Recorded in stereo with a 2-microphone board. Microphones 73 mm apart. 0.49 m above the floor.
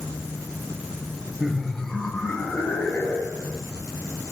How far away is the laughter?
About 0.8 m.